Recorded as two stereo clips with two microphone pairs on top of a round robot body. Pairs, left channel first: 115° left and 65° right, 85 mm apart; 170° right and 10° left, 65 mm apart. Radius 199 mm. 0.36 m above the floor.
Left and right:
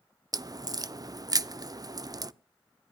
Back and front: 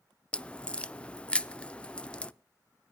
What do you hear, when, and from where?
0.3 s a crack: 100° right, 0.6 m